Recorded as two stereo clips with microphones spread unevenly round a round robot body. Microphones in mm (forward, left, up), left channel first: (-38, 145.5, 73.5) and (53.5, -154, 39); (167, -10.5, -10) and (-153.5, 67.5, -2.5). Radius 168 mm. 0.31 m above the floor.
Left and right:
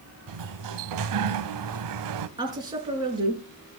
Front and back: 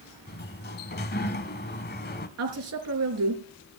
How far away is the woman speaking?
About 5.5 m.